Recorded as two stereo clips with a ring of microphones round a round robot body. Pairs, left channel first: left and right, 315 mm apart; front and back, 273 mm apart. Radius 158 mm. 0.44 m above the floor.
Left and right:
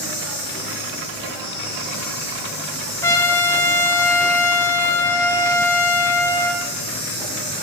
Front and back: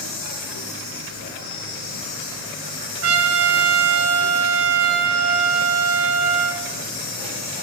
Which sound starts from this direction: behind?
A trumpet, at 3.0 s.